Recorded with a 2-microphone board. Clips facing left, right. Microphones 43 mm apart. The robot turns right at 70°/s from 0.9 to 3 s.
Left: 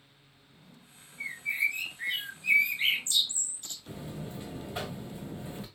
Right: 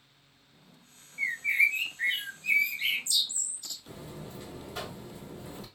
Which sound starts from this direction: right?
A bird, at 1.2 s.